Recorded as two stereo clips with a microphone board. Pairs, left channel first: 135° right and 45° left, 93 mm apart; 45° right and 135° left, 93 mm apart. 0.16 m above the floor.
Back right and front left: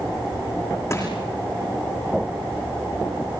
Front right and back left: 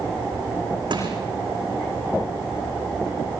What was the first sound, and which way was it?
Crushing, 170° left.